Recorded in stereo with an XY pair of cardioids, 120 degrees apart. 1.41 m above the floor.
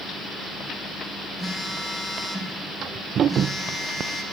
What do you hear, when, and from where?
1.4 s a phone buzzing: 15° left, 0.8 m